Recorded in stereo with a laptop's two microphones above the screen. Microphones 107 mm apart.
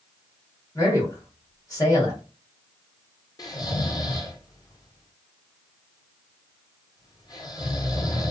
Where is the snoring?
35° left (ahead or behind), 0.8 m.